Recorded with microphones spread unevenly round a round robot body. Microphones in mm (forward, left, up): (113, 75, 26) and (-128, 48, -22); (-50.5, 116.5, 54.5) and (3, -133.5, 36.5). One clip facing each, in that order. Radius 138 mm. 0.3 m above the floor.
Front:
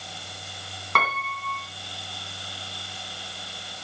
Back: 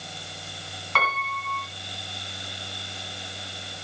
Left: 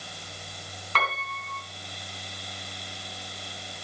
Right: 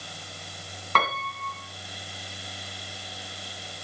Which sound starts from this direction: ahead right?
A piano, at 0.9 s.